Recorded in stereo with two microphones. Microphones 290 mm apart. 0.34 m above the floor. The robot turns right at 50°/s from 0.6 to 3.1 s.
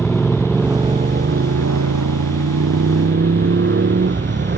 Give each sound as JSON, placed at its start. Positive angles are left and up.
{"t": 0.0, "sound": "a motorcycle", "side_deg": 0}